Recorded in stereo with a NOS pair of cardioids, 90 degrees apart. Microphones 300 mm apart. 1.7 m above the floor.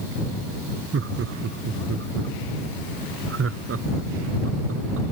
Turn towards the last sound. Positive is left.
turn(degrees=-45)